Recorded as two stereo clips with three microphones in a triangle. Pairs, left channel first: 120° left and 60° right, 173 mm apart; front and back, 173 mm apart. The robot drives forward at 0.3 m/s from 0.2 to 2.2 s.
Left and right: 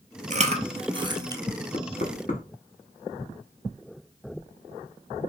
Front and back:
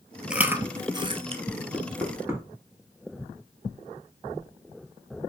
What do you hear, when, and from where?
0.3 s chewing: 95° right, 0.5 m; by 1.4 s 125° right, 0.6 m
1.7 s knocking: 100° left, 1.1 m; by 2.4 s 110° left, 1.1 m